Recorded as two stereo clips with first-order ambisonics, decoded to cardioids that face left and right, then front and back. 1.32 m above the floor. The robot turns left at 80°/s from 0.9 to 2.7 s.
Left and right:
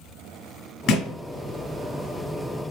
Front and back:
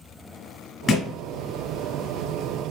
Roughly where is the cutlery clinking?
I don't hear cutlery clinking.